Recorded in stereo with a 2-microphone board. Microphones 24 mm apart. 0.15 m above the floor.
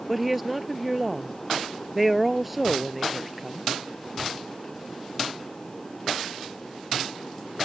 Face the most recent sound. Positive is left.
turn(degrees=-5)  # may be behind; listen again after turning